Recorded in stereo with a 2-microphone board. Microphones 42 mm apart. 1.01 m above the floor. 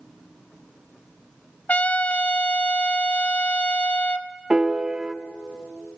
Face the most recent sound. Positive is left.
turn(degrees=-20)  # may be behind; listen again after turning